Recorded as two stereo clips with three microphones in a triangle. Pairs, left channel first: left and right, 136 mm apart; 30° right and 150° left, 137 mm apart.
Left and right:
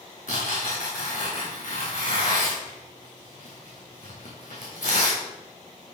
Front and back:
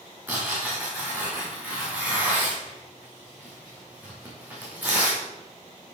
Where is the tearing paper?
75° left, 4.5 m.